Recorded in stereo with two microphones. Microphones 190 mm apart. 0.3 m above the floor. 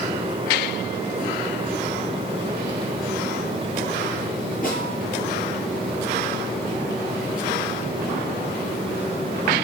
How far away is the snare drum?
About 7 m.